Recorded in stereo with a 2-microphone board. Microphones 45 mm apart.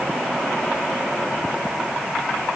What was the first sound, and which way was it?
Only background noise.